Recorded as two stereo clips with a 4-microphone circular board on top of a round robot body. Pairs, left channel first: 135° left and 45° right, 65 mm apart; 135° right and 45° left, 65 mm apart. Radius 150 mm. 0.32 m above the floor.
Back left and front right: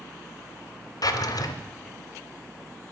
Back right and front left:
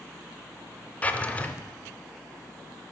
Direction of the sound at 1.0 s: 155° left.